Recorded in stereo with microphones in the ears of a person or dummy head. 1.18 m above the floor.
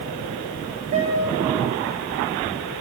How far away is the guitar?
About 4.5 m.